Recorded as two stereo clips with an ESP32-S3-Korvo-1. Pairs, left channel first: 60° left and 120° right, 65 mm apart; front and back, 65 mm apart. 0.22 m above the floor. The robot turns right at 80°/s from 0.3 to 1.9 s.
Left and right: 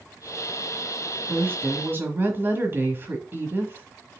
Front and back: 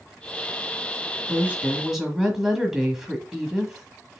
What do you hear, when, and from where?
1.3 s a woman speaking: 155° right, 1.5 m; by 4.2 s 105° right, 1.5 m